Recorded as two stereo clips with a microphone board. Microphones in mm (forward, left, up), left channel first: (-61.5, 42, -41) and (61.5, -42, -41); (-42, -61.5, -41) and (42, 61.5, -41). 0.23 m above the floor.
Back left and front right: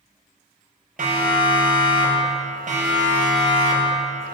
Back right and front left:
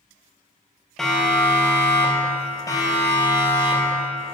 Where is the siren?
35° right, 4 m; by 4.3 s 75° right, 4.5 m.